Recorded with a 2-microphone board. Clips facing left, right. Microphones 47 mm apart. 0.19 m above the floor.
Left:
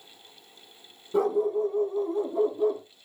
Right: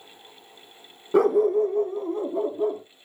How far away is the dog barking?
About 0.5 m.